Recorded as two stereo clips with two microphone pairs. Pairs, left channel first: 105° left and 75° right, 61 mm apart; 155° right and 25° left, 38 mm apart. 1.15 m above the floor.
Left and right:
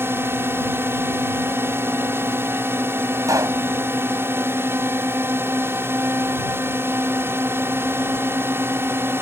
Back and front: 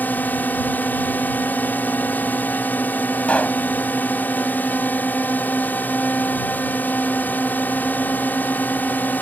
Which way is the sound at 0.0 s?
120° right.